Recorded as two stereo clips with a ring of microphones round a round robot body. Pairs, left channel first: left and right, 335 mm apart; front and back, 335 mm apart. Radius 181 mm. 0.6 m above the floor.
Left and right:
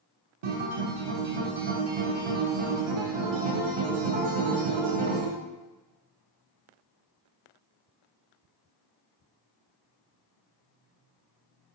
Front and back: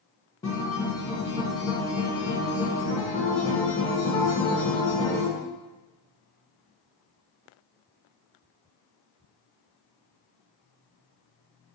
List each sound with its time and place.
0.4 s a guitar: 80° right, 0.6 m